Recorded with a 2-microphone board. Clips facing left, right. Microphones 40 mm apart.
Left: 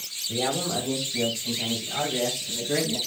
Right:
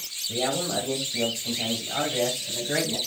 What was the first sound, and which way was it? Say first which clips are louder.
A man speaking: even; 5° right (ahead or behind).